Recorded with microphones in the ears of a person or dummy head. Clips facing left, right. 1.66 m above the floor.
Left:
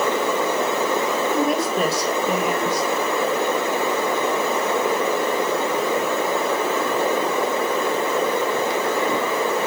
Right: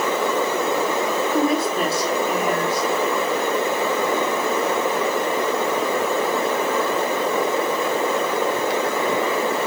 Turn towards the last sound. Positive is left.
turn(degrees=-5)  # may be behind; listen again after turning